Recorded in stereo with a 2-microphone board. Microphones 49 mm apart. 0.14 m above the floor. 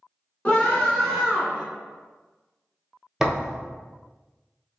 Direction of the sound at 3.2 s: 10° right (ahead or behind).